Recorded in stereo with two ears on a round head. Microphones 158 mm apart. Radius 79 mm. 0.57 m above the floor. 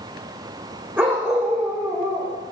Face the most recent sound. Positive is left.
turn(degrees=-5)  # may be behind; listen again after turning